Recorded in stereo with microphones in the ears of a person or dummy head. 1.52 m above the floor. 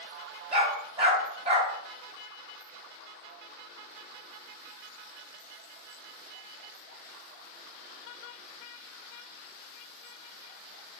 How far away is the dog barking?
About 2.5 m.